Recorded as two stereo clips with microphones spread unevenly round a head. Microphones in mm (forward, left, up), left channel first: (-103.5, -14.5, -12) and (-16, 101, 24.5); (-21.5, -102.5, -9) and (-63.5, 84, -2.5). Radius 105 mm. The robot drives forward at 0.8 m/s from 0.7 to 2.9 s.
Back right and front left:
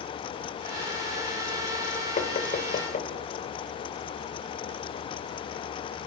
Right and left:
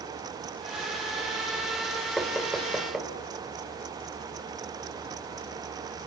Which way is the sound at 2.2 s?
165° right.